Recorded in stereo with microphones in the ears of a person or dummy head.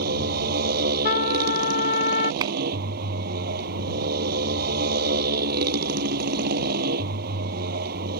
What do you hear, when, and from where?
0.0 s a motorcycle: 55° right (ahead or behind)
1.1 s a trumpet: 55° left (ahead or behind)
2.4 s a clap: 20° right (ahead or behind)